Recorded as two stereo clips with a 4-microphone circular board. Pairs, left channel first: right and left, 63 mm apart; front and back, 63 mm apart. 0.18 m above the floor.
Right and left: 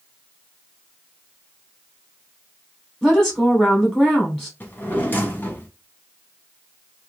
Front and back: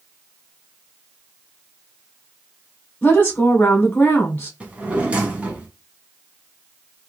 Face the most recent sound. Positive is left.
turn(degrees=-125)